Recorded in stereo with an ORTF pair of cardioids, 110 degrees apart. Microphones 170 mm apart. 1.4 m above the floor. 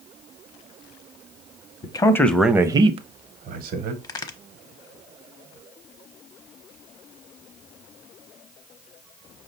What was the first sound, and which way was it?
A man speaking, 30° left.